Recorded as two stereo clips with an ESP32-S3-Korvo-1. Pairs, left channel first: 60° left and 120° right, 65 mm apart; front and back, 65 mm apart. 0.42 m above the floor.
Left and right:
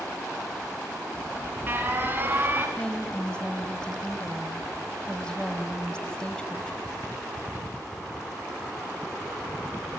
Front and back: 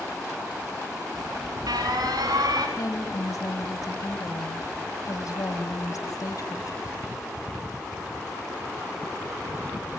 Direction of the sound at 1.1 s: Straight behind.